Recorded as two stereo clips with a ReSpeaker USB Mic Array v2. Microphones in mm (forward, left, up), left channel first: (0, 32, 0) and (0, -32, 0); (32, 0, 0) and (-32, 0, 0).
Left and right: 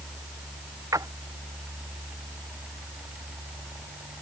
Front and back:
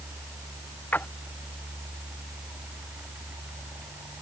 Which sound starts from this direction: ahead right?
A splash, at 0.9 s.